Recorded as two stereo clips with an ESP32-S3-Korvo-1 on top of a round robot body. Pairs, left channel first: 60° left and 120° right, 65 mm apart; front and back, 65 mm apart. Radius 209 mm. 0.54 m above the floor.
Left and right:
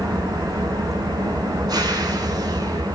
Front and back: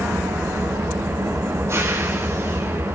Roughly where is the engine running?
Behind right.